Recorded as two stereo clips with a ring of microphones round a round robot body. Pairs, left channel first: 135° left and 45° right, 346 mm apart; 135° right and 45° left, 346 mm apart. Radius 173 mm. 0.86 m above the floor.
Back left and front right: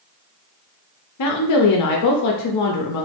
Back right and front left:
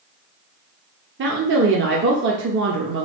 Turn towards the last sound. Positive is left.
turn(degrees=100)